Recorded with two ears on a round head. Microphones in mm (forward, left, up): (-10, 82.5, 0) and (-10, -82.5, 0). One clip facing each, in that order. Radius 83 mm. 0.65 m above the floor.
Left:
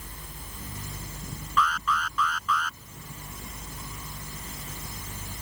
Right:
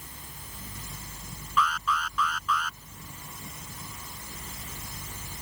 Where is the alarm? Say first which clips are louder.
Left 1 dB; 5° right (ahead or behind).